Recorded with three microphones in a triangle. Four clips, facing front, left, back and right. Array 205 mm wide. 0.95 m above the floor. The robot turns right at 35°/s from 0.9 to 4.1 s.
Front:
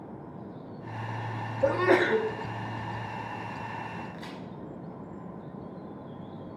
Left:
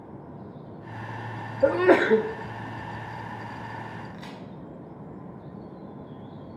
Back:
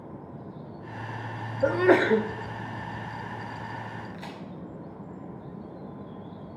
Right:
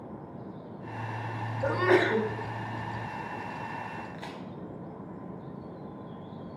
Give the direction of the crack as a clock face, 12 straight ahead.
4 o'clock.